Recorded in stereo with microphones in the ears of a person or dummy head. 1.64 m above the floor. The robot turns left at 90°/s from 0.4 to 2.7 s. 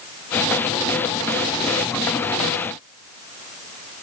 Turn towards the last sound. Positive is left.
No sound to turn to.